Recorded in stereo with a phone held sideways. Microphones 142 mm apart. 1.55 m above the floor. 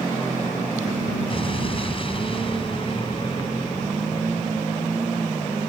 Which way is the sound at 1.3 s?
40° left (ahead or behind).